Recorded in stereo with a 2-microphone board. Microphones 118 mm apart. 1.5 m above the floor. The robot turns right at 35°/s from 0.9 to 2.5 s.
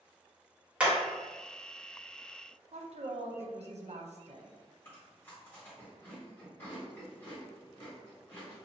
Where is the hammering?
10° right (ahead or behind), 1.7 m.